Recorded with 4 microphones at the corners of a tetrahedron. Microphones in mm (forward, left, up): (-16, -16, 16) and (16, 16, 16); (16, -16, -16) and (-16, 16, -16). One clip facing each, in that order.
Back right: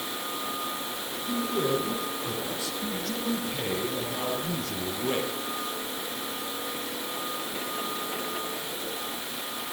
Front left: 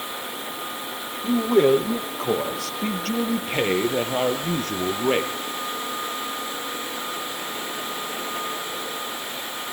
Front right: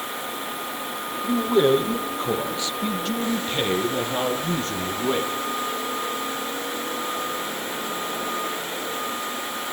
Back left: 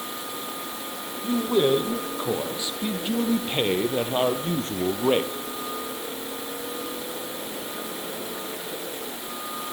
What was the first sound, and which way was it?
A man speaking, 45° left.